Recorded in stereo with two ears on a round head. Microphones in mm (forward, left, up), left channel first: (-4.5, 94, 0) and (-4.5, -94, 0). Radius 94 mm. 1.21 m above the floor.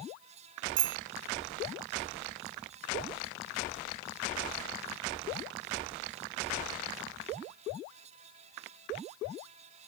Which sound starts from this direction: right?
A bicycle bell, at 0.8 s.